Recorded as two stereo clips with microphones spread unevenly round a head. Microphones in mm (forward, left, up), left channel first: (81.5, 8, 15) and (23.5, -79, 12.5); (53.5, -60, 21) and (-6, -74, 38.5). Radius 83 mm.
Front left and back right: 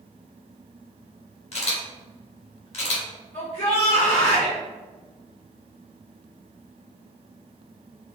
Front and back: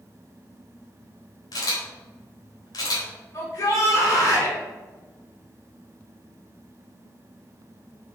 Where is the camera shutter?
40° left, 3 m.